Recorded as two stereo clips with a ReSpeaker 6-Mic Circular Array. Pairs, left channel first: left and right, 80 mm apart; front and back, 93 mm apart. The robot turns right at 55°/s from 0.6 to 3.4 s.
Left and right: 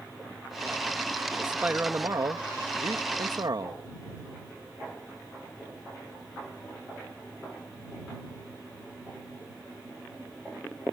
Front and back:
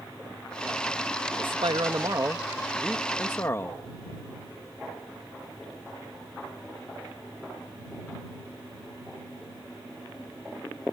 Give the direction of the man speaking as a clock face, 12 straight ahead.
6 o'clock.